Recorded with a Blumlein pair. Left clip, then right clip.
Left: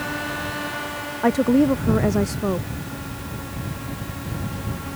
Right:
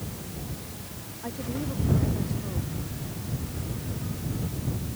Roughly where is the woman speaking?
Ahead left.